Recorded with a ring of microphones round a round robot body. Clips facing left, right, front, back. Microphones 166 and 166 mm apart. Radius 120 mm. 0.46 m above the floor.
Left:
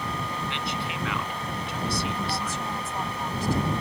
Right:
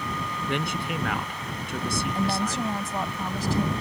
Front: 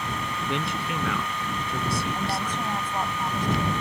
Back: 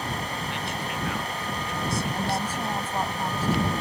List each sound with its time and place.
0.5 s a man speaking: 50° right
2.1 s a woman speaking: 95° right